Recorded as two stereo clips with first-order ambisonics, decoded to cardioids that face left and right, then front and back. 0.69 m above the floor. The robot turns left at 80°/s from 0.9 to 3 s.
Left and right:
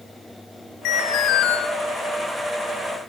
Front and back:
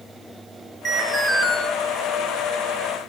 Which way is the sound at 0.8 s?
110° left.